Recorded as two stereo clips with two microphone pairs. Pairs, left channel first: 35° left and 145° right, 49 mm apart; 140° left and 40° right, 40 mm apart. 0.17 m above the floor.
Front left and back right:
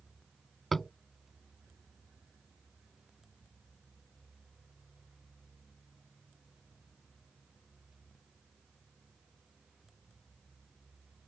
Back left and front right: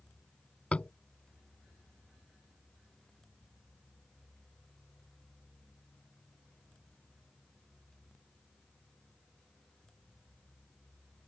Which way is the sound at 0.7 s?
120° left.